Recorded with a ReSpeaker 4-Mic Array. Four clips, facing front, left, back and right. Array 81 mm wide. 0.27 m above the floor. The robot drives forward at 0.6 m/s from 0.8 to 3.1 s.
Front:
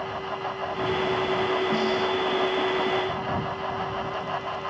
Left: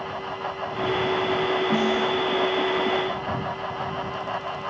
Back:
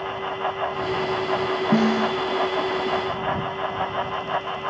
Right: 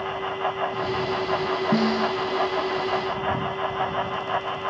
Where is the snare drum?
160° right.